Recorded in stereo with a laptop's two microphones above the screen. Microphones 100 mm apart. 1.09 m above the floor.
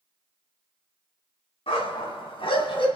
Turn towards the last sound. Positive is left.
turn(degrees=65)  # may be behind; listen again after turning